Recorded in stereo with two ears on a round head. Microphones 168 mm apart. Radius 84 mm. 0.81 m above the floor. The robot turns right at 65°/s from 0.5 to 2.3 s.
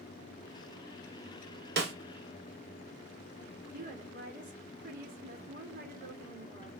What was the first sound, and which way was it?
A snare drum, 60° right (ahead or behind).